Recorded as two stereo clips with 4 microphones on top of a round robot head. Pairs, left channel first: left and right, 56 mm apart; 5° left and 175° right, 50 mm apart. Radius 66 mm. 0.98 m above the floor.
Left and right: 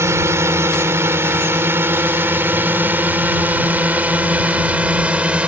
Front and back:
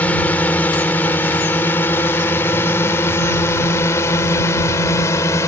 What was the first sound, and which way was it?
A drone, 55° right.